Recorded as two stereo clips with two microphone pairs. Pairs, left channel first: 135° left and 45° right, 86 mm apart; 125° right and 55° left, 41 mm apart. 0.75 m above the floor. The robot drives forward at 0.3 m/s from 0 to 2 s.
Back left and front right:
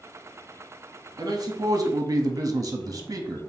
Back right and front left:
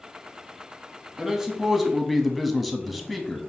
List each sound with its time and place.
1.2 s a man speaking: 15° right, 0.8 m; by 3.4 s 25° right, 0.6 m